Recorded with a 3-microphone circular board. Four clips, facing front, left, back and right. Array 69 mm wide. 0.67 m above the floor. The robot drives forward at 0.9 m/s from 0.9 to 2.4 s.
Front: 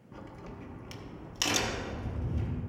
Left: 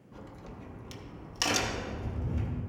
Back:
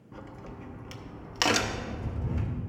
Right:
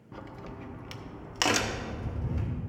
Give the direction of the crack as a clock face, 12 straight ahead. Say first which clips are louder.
Right 4 dB, back 2 dB; 3 o'clock.